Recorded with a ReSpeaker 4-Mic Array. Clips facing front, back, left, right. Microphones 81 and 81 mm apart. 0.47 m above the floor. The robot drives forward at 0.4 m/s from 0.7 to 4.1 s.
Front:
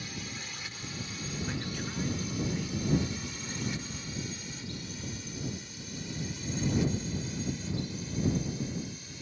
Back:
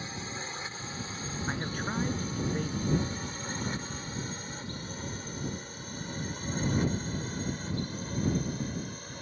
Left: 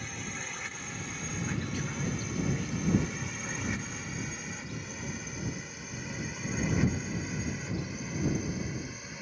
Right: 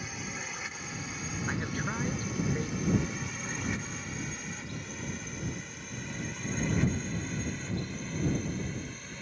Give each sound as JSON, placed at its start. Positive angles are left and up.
{"t": 0.0, "sound": "a drone", "azimuth_deg": -170}
{"t": 1.5, "sound": "a man speaking", "azimuth_deg": -135}